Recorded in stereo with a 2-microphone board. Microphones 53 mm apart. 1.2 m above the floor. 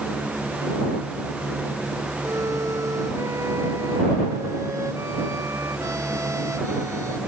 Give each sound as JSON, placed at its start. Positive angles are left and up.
{"t": 2.2, "sound": "a violin", "side_deg": -75}